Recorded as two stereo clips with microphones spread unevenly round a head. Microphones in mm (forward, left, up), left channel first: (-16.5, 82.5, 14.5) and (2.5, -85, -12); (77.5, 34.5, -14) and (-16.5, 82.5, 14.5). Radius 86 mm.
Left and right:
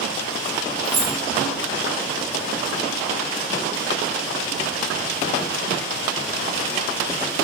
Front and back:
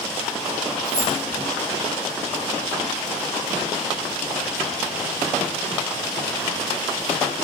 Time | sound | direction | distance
0.8 | keys jangling | 125° right | 3.5 m